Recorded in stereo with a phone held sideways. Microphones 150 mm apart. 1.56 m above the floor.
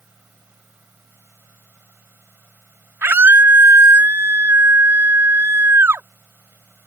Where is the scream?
15° right (ahead or behind).